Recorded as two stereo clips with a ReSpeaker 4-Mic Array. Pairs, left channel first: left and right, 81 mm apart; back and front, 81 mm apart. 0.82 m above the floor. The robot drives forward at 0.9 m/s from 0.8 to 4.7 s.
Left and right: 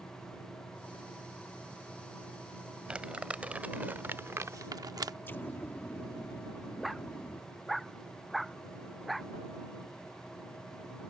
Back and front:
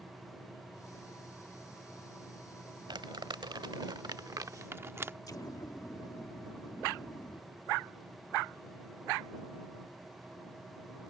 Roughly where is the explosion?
Behind left.